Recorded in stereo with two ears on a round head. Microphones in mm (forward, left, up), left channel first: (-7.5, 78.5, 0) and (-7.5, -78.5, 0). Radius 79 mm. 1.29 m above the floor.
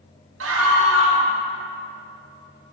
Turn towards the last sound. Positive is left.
turn(degrees=-85)